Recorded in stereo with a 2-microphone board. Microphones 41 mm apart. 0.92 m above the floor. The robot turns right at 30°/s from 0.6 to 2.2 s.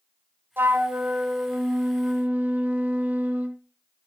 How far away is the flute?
About 1.2 m.